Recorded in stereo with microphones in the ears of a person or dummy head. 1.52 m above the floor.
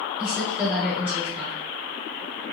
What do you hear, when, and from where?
0.2 s a woman speaking: 5° right (ahead or behind), 1.9 m